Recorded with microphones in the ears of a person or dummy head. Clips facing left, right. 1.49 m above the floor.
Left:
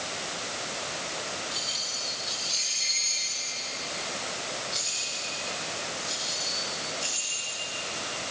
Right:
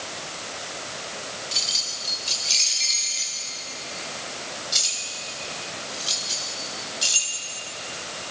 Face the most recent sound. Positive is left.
turn(degrees=-55)  # may be behind; listen again after turning